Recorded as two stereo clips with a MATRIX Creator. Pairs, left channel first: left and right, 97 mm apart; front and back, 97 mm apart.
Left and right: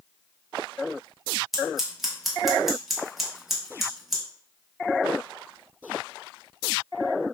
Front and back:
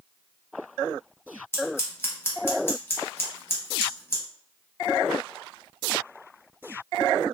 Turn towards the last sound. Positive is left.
turn(degrees=-5)